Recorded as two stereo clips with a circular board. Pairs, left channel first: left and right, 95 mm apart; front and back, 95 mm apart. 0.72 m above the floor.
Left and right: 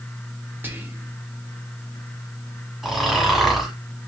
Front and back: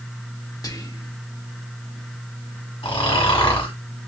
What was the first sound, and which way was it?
Whispering, 30° right.